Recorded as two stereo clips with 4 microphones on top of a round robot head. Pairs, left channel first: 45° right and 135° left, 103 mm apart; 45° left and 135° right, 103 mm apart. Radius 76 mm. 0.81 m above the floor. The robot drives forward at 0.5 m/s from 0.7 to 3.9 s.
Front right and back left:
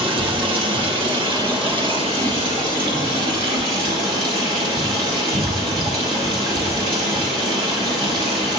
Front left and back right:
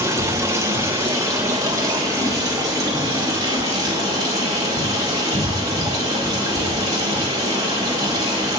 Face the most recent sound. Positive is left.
turn(degrees=170)